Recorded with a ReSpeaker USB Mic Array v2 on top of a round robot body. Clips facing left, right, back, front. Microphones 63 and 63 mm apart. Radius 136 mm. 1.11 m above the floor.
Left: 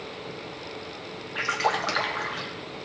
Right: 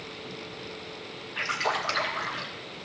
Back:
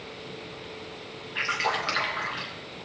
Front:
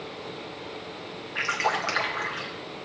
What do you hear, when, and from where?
1.4 s a splash: 75° left, 1.1 m